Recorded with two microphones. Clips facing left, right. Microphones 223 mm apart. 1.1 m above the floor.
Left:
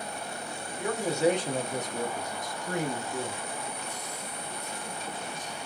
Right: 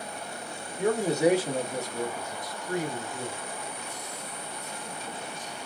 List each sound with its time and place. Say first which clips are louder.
0.8 s a man speaking: right 3 dB; 35° right (ahead or behind), 0.7 m; by 3.4 s 65° left (ahead or behind), 1.2 m